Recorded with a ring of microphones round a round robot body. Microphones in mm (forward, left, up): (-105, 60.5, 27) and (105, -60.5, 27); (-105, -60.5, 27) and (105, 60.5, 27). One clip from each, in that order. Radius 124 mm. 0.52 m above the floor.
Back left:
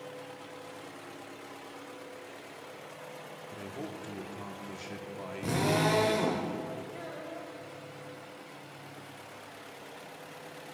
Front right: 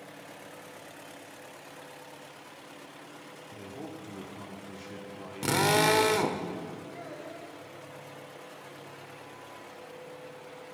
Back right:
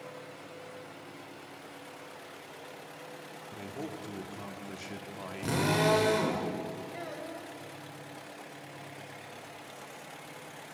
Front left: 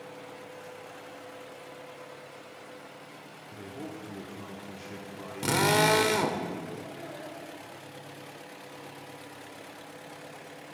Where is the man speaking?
160° right, 1.3 m.